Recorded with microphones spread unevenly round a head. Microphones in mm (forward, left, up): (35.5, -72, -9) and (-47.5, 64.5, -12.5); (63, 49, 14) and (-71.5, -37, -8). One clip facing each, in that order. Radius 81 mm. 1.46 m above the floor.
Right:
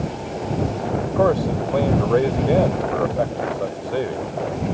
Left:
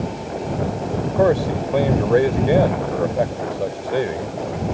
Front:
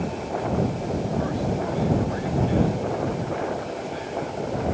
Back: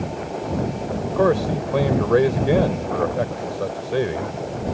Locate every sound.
1.1 s a man speaking: 160° right